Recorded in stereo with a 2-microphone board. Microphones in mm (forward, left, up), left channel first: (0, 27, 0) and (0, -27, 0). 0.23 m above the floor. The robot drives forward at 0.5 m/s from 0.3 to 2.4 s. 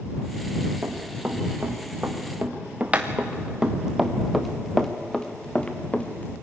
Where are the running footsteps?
35° right (ahead or behind), 4 m; by 6.3 s 30° left (ahead or behind), 2 m.